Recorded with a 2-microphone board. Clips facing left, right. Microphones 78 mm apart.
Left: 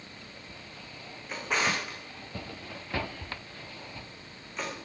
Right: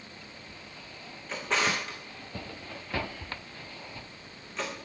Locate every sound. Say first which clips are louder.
1.3 s a drawer: right 1 dB; 10° left (ahead or behind), 4.5 m